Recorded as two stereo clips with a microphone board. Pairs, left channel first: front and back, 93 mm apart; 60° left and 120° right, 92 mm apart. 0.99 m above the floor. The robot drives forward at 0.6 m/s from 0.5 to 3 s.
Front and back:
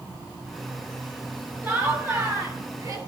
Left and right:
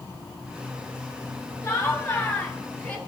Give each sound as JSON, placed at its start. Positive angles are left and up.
{"t": 1.6, "sound": "laughter", "azimuth_deg": 120, "distance_m": 2.5}